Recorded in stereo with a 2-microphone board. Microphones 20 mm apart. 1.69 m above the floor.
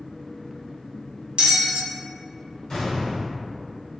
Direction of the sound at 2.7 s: 45° left (ahead or behind).